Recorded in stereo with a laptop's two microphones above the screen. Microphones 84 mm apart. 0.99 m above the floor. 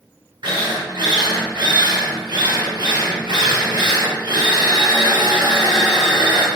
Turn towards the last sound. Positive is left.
turn(degrees=-65)  # may be behind; listen again after turning